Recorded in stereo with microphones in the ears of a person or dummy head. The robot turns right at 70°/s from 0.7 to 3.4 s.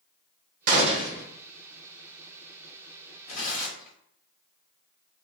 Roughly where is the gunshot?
Ahead right.